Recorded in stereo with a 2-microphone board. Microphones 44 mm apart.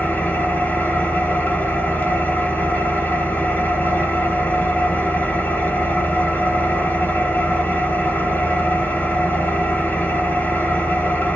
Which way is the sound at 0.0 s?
40° left (ahead or behind).